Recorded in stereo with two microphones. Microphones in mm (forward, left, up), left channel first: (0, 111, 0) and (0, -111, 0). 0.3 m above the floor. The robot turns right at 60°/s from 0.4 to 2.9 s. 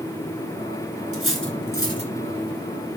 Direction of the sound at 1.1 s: 75° right (ahead or behind).